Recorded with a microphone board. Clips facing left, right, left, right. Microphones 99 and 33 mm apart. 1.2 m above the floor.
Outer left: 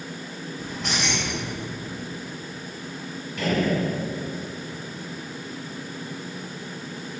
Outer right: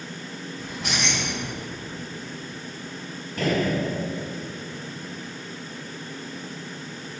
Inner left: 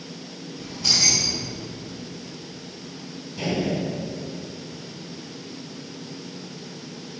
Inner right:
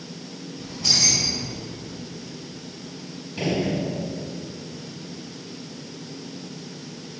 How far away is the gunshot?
About 3.5 m.